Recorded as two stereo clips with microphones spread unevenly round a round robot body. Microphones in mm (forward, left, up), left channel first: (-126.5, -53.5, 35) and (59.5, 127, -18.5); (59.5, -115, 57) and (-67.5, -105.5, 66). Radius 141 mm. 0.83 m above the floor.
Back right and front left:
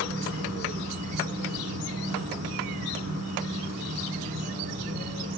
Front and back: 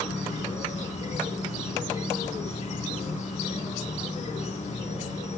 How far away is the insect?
About 3.5 m.